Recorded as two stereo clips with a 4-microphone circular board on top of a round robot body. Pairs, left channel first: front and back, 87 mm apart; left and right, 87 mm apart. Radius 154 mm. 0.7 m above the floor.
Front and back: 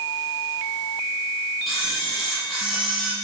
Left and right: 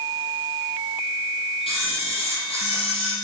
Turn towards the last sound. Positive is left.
turn(degrees=90)